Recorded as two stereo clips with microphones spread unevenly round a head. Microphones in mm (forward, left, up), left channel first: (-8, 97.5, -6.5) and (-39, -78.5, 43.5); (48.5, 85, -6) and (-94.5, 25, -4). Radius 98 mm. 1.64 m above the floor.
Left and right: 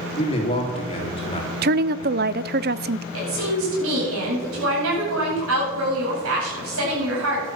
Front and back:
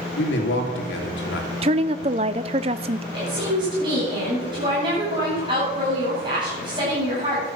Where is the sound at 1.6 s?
100° right, 0.5 m.